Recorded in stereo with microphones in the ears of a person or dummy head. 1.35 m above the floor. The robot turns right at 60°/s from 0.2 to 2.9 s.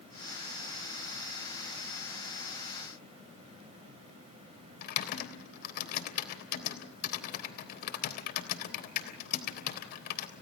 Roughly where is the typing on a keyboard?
Left.